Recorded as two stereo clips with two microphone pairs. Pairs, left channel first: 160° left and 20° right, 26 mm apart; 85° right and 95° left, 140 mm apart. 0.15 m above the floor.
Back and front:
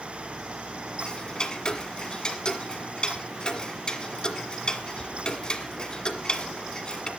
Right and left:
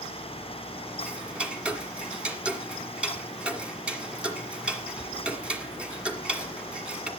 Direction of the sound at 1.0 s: 170° left.